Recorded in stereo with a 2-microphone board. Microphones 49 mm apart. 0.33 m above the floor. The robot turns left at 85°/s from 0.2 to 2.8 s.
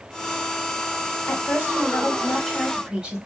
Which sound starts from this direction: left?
A woman speaking, at 1.3 s.